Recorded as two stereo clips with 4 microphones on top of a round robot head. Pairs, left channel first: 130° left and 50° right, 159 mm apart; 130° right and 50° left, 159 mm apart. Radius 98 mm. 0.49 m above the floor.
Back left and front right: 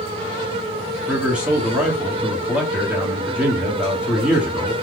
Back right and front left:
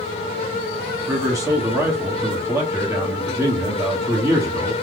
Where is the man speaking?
20° left, 1.0 m.